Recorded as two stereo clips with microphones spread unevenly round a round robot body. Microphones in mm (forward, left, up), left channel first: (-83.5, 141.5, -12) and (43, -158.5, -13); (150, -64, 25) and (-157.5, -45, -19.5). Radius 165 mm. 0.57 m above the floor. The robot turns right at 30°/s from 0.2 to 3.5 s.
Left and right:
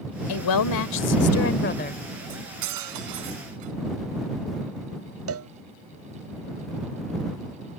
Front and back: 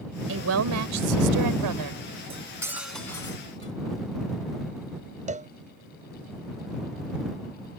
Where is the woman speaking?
125° left; by 2.0 s straight behind.